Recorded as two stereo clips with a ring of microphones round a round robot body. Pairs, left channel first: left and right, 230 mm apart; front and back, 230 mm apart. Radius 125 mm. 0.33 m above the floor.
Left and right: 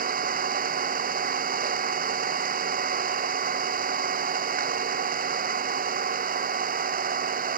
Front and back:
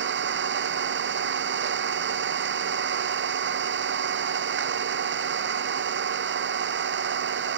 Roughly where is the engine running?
Behind right.